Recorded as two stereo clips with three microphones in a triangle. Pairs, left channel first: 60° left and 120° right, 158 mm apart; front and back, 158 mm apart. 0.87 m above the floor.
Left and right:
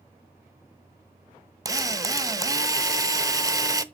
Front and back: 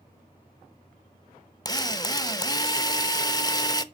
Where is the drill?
55° right, 0.8 m.